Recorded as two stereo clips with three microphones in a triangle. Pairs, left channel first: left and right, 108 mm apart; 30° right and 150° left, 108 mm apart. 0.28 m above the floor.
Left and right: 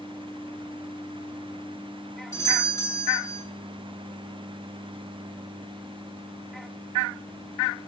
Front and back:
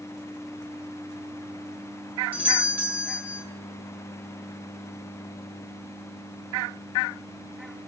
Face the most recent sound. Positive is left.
turn(degrees=90)